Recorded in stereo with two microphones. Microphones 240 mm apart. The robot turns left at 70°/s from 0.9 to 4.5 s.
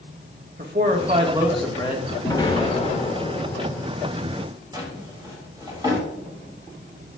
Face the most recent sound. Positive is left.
turn(degrees=-20)  # may be behind; listen again after turning